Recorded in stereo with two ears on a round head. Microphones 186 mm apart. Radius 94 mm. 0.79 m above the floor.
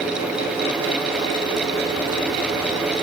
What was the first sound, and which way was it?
Only background noise.